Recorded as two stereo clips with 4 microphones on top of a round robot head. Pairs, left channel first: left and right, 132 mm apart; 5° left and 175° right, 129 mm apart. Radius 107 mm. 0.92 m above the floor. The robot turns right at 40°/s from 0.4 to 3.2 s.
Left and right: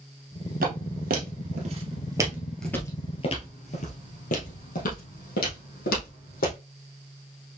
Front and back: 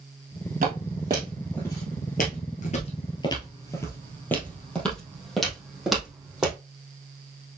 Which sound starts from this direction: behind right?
Footsteps, at 0.6 s.